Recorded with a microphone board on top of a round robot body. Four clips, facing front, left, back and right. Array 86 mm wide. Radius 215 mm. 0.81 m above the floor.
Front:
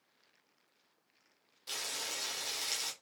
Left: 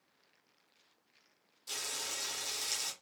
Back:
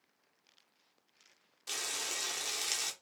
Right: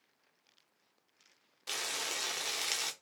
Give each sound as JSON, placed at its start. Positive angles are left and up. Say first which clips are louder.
{"t": 1.7, "sound": "frying", "louder": "right 4 dB, back 1 dB", "azimuth_deg": -100, "distance_m": 0.7}